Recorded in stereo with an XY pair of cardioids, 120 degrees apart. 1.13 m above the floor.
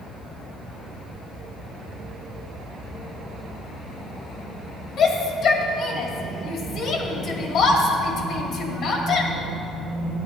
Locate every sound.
5.0 s a shout: 60° left, 2 m